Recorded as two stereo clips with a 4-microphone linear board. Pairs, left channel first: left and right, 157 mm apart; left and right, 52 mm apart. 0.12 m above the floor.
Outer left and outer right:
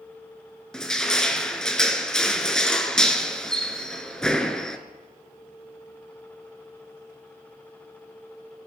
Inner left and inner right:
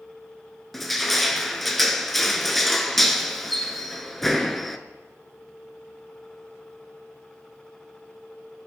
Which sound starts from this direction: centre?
Crushing, at 0.7 s.